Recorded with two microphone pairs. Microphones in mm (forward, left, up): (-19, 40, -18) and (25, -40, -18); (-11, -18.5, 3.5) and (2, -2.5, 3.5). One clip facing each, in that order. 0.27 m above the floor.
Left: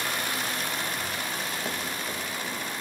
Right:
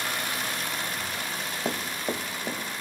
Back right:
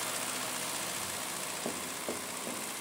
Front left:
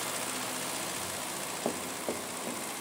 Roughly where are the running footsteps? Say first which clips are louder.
Right 3 dB, front left 6 dB; ahead.